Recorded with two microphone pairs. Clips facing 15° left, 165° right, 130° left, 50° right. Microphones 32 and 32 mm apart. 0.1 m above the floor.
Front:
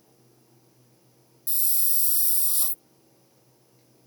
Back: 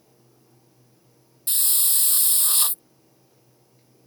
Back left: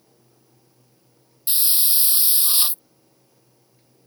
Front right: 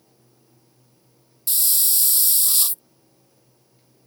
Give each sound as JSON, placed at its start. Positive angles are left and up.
{"t": 1.5, "sound": "a hiss", "azimuth_deg": -170}